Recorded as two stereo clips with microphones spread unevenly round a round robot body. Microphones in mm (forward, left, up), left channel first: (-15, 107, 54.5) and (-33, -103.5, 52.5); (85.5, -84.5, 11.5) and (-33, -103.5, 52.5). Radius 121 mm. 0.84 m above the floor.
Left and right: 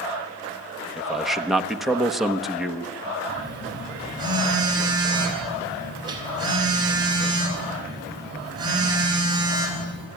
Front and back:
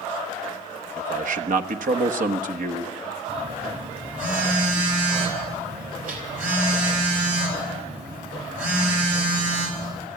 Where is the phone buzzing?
165° right, 5 m.